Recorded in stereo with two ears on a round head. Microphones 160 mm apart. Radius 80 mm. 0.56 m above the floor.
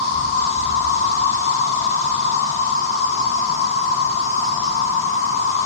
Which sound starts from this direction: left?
An insect, at 0.0 s.